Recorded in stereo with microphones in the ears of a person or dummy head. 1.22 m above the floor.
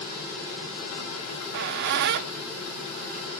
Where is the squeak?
45° right (ahead or behind), 0.6 m.